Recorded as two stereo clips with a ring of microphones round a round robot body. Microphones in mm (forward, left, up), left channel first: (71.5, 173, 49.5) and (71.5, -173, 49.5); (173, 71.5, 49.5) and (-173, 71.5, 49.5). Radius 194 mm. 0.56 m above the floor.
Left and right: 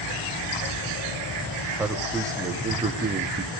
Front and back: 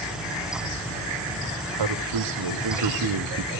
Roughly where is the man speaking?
Behind.